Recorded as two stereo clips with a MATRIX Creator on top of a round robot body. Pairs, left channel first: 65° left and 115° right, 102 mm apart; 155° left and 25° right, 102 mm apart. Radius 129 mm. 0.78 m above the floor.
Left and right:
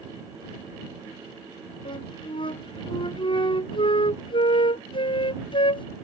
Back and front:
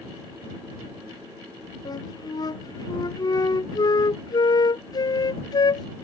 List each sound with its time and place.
1.9 s a flute: 105° left